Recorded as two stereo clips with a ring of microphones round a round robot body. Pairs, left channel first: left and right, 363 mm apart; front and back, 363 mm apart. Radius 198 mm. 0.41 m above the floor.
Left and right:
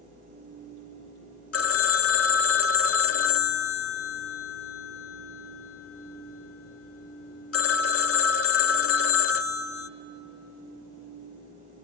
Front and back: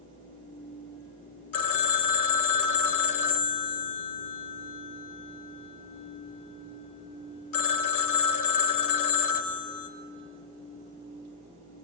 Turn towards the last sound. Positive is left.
turn(degrees=40)